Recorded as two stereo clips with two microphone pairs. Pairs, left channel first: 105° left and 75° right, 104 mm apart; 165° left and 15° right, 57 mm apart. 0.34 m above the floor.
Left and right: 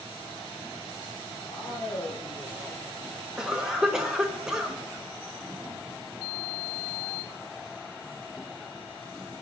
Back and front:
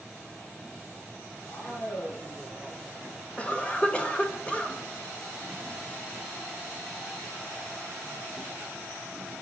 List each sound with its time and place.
1.5 s a man speaking: 150° left, 5 m
3.4 s a cough: 155° right, 0.9 m